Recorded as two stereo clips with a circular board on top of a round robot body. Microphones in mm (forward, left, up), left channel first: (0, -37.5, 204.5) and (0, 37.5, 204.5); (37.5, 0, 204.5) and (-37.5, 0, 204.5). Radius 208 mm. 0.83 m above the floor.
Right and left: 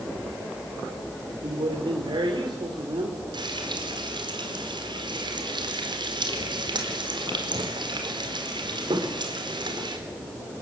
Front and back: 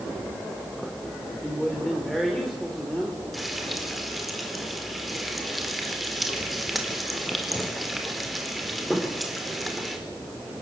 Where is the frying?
90° left, 4.5 m.